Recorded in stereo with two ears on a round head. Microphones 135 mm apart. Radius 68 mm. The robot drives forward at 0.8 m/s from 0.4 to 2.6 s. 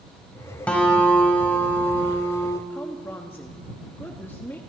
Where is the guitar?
10° left (ahead or behind), 2.5 m; by 2.6 s 20° left (ahead or behind), 1.1 m.